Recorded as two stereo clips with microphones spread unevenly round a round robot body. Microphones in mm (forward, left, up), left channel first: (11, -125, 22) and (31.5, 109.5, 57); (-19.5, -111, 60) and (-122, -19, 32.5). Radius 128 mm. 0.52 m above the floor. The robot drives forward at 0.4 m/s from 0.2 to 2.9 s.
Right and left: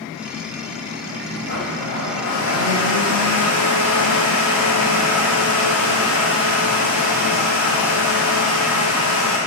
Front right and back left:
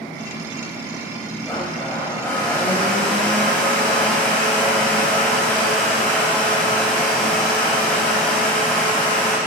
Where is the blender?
115° right, 4 m; by 9.4 s 125° right, 4 m.